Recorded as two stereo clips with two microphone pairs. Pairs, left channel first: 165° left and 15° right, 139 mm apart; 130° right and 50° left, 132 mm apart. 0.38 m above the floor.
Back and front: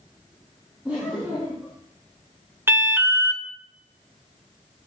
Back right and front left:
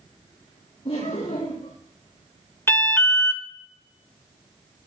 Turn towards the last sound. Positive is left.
turn(degrees=-75)